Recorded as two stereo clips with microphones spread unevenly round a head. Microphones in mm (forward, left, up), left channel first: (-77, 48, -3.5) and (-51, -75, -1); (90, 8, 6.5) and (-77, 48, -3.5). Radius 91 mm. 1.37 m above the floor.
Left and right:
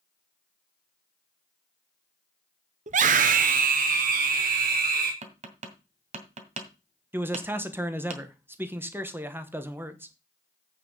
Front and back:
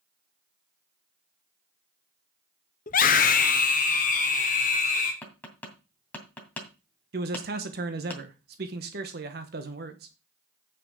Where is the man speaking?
150° right, 1.0 m.